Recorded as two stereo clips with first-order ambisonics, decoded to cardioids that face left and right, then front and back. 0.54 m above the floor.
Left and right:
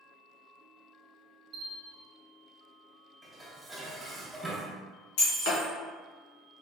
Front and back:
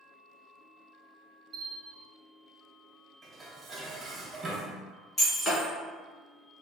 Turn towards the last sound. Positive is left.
turn(degrees=80)